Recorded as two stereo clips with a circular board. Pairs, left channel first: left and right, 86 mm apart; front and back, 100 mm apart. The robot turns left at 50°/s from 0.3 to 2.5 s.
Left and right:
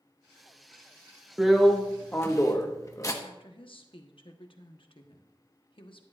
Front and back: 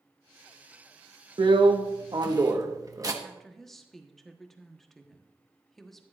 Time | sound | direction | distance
1.4 | a drill | 170° right | 1.1 m
3.2 | a woman speaking | 85° left | 1.1 m